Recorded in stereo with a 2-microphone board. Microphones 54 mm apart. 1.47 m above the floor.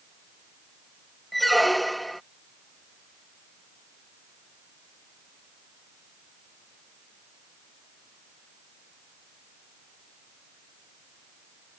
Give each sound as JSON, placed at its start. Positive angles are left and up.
{"t": 1.3, "sound": "a squeak", "side_deg": 0}